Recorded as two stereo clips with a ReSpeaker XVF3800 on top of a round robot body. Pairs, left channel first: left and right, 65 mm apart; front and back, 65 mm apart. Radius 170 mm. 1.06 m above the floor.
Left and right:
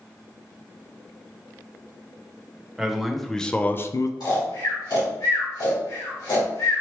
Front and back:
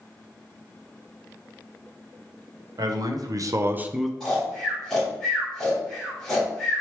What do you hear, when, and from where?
2.8 s a man speaking: 175° right, 1.0 m; by 4.1 s 90° left, 0.5 m
4.2 s snoring: 85° left, 2 m